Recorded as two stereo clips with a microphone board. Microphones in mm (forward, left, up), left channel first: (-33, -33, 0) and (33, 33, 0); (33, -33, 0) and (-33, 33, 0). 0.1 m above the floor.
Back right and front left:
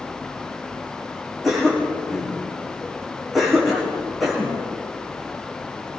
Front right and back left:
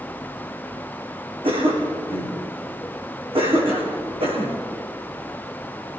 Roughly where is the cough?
Behind left.